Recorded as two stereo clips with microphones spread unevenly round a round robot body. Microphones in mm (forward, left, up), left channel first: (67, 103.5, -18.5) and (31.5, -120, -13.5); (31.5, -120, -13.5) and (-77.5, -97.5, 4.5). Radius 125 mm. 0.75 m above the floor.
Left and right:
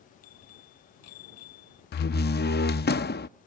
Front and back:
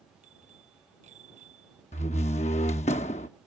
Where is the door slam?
35° left.